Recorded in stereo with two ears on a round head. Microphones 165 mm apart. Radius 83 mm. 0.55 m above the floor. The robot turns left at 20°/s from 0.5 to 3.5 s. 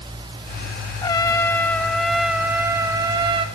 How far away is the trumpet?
About 1.2 m.